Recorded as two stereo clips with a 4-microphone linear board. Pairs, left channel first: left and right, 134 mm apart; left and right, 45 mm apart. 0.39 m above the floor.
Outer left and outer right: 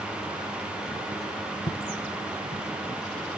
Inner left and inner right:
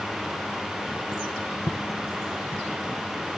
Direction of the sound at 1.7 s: 70° left (ahead or behind).